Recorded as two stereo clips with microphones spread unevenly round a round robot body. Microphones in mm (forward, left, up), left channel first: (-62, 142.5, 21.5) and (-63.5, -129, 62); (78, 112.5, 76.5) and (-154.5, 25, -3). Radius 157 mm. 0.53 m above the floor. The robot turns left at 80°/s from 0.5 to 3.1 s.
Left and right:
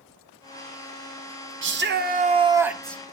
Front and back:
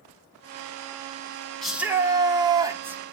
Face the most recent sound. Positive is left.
turn(degrees=145)